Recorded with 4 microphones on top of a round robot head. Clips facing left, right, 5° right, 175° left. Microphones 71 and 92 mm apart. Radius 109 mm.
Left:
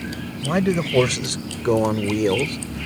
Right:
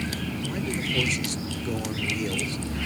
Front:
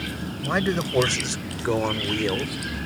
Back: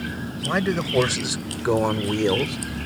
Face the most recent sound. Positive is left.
turn(degrees=115)